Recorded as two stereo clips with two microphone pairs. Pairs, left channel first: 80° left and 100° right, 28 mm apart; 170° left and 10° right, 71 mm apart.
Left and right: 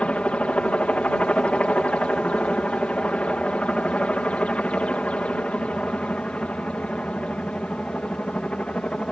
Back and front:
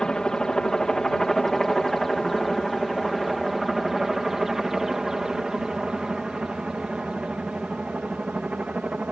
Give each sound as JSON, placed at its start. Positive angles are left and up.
{"t": 0.0, "sound": "a helicopter", "azimuth_deg": 95}